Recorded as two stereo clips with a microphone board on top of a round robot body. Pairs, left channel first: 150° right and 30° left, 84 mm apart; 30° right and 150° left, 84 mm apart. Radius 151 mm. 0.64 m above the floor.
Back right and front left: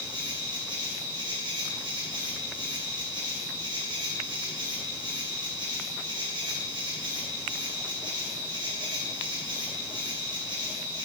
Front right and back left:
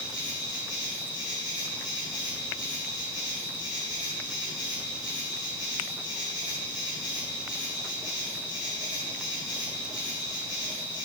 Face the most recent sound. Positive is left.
turn(degrees=5)